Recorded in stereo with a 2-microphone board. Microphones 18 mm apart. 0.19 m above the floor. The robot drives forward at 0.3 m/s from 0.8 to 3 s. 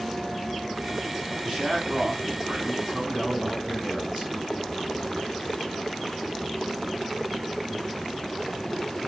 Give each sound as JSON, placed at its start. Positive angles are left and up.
{"t": 1.4, "sound": "a man speaking", "side_deg": -45, "distance_m": 1.8}